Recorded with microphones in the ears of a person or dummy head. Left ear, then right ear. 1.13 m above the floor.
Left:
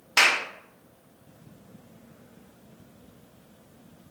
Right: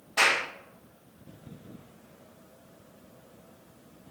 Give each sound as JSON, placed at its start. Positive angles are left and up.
{"t": 0.2, "sound": "a clap", "side_deg": 70, "distance_m": 0.6}